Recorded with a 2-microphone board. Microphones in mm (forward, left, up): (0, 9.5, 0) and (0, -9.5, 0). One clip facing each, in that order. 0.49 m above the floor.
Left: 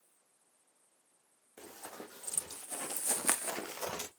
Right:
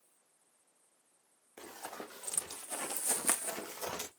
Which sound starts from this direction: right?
Running footsteps, at 1.6 s.